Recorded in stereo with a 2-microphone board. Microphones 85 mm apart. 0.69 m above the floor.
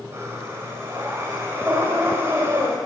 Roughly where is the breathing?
Right.